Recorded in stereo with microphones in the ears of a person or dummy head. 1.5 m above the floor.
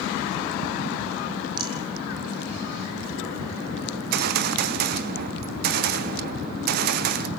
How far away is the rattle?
About 1.1 m.